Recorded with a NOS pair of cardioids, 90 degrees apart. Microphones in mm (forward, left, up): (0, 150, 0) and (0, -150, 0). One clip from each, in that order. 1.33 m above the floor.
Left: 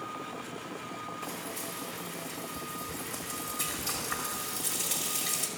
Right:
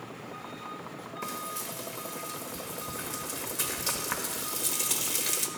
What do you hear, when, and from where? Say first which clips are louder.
1.2 s frying: right 2 dB; 60° right, 1.4 m